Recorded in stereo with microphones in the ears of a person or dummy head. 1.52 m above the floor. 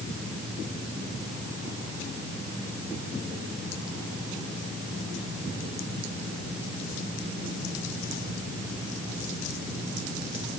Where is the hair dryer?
No hair dryer in this recording.